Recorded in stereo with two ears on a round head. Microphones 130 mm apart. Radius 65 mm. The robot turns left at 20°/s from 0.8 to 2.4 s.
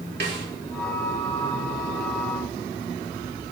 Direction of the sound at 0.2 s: 85° right.